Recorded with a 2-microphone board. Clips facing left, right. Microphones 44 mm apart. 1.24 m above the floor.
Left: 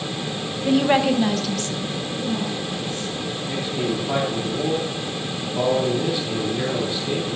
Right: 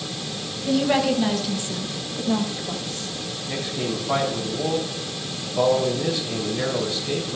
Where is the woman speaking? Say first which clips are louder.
Left 2 dB; 35° left (ahead or behind), 1.4 m; by 3.1 s 65° right (ahead or behind), 2.5 m.